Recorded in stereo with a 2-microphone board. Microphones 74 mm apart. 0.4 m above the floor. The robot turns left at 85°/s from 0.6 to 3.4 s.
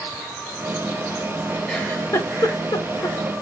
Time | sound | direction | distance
1.7 | a giggle | 10° left (ahead or behind) | 0.6 m